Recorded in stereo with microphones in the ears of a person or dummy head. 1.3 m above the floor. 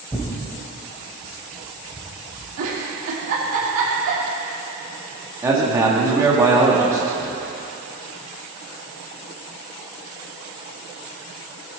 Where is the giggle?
65° right (ahead or behind), 2.5 m.